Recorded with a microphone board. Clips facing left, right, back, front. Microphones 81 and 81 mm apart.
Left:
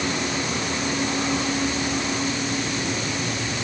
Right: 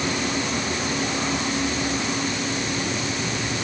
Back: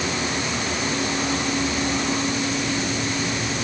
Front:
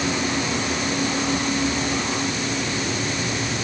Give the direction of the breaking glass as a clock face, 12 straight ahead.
I don't hear breaking glass.